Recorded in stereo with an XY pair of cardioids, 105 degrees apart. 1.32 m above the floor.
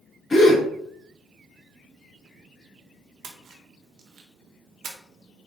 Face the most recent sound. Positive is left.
turn(degrees=-65)